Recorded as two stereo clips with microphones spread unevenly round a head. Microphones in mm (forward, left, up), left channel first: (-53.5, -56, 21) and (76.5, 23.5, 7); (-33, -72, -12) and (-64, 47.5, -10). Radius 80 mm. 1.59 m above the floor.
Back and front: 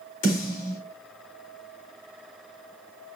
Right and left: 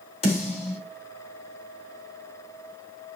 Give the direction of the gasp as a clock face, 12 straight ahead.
I don't hear a gasp.